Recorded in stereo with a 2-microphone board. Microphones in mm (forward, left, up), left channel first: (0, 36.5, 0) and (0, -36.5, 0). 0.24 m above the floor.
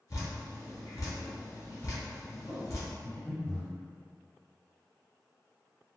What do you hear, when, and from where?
0.1 s dripping: 50° left (ahead or behind), 1.3 m
3.0 s breathing: 20° left (ahead or behind), 1.9 m